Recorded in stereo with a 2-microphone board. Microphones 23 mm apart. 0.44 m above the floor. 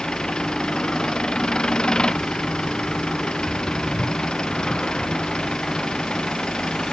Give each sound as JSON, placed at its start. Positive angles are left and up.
{"t": 0.0, "sound": "an engine running", "side_deg": 35}